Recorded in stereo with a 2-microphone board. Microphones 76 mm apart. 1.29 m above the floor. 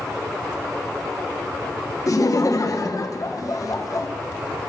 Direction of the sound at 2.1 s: 50° left (ahead or behind).